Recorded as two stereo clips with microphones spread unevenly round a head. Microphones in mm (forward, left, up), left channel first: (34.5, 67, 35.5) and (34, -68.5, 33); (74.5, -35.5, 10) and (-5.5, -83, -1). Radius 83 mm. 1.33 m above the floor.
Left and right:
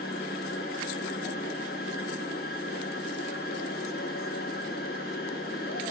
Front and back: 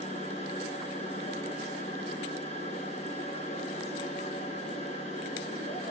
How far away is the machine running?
About 1.9 m.